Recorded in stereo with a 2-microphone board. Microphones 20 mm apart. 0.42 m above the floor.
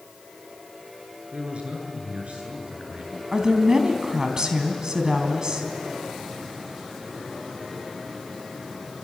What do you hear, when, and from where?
1.3 s a man speaking: 65° right (ahead or behind), 7.5 m
3.3 s a woman speaking: 30° right (ahead or behind), 3.5 m